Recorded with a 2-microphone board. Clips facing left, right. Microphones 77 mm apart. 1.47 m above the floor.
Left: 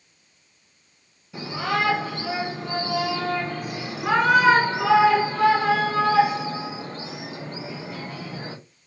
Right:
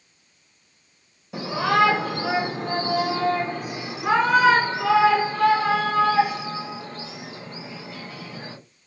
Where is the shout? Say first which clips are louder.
Right 5 dB; 70° right (ahead or behind), 1.1 m; by 8.6 s 35° left (ahead or behind), 3 m.